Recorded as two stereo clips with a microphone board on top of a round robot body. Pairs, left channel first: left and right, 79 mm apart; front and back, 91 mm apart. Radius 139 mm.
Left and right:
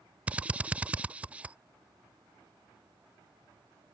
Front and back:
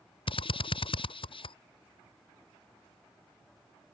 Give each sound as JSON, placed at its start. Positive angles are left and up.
{"t": 0.3, "sound": "a drill", "azimuth_deg": -15}